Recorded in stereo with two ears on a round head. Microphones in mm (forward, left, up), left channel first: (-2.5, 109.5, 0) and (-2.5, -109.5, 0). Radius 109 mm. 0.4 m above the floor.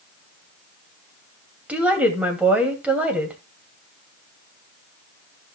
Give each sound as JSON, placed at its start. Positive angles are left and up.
{"t": 1.7, "sound": "a woman speaking", "side_deg": -5, "distance_m": 2.5}